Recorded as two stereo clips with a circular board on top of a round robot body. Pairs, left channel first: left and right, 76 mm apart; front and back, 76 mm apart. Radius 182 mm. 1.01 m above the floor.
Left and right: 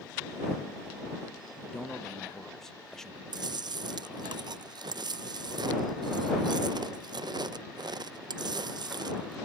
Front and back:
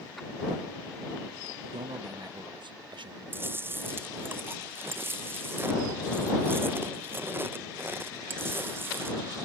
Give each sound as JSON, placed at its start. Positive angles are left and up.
{"t": 1.6, "sound": "a man speaking", "azimuth_deg": 175}
{"t": 3.3, "sound": "chewing", "azimuth_deg": -120}